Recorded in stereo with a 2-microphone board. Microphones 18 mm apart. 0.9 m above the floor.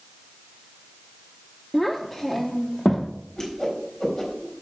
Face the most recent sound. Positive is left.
turn(degrees=30)  # may be behind; listen again after turning